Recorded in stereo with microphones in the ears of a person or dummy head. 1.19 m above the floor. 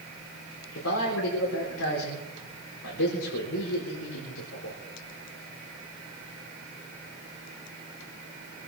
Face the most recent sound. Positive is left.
turn(degrees=75)  # may be behind; listen again after turning